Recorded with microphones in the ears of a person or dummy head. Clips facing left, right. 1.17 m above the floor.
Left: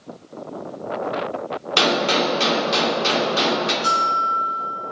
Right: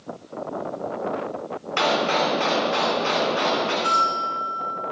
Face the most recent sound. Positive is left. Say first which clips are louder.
# left 1 dB
turn(degrees=30)  # may be behind; listen again after turning